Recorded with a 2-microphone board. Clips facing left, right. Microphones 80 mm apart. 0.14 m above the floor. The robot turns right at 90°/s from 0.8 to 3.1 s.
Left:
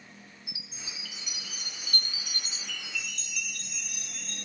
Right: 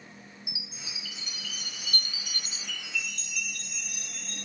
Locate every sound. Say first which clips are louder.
0.5 s a chime: right 1 dB; 25° right, 1.5 m; by 4.5 s straight behind, 1.5 m